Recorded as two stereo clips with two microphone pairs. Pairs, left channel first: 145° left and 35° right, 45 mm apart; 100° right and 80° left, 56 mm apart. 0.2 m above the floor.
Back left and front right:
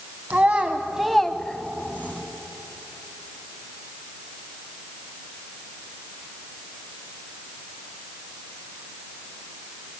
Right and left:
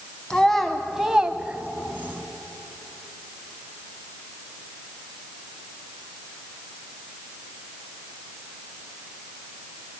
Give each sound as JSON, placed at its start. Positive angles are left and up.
{"t": 0.3, "sound": "a child speaking", "azimuth_deg": -25, "distance_m": 0.7}